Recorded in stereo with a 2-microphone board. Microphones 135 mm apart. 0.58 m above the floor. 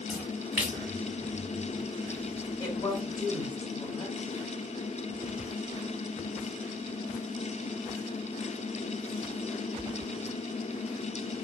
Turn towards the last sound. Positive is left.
turn(degrees=25)  # may be behind; listen again after turning